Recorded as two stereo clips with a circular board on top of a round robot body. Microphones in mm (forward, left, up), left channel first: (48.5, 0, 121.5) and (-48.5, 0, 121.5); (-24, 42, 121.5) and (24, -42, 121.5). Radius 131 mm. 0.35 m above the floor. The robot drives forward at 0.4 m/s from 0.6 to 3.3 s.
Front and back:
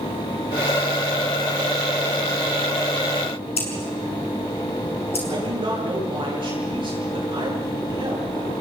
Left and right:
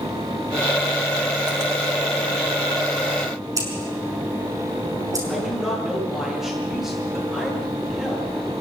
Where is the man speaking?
145° right, 9.5 m.